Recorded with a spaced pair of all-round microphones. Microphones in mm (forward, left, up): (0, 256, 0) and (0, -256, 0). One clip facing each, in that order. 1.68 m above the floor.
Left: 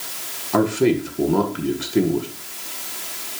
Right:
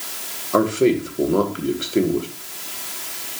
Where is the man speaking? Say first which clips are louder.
Right 1 dB; 15° left (ahead or behind), 1.8 m.